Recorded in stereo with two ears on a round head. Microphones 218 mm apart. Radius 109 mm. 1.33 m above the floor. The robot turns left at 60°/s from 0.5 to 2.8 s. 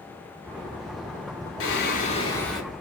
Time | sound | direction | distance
1.6 | singing | 60° left | 0.6 m